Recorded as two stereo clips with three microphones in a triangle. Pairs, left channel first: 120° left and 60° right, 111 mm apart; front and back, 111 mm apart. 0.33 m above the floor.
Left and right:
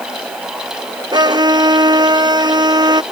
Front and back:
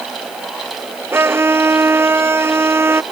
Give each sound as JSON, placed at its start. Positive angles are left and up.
{"t": 1.1, "sound": "a violin", "azimuth_deg": -110}